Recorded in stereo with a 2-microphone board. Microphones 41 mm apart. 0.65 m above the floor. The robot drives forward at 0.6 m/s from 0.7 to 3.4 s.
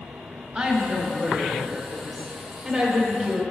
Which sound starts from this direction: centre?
A woman speaking, at 0.6 s.